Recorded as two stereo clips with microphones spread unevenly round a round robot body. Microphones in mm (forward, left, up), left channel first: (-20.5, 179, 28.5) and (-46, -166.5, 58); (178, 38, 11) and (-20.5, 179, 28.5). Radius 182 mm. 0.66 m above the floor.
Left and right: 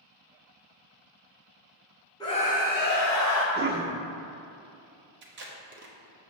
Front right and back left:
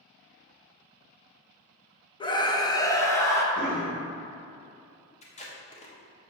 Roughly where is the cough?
Behind right.